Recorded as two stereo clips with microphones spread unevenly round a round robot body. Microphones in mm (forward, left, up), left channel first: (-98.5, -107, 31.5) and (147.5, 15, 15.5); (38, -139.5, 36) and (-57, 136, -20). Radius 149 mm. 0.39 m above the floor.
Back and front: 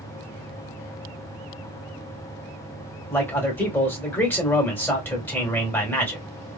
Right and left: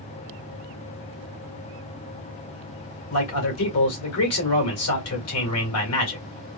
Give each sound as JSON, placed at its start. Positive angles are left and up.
{"t": 3.1, "sound": "a man speaking", "azimuth_deg": -70, "distance_m": 1.6}